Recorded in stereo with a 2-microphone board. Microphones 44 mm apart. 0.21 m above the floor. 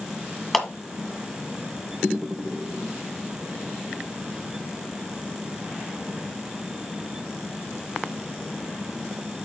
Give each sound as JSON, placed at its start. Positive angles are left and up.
{"t": 0.5, "sound": "a clap", "side_deg": 5, "distance_m": 1.6}